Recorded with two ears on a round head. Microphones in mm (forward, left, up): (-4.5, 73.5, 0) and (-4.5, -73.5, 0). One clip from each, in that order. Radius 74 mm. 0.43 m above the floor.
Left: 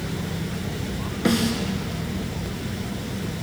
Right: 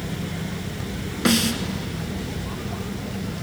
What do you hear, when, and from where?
1.2 s a snare drum: 35° right (ahead or behind), 2.5 m